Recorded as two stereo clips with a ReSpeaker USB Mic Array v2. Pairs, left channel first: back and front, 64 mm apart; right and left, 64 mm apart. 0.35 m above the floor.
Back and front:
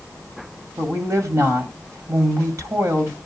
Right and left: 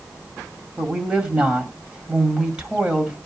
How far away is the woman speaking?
About 1.9 m.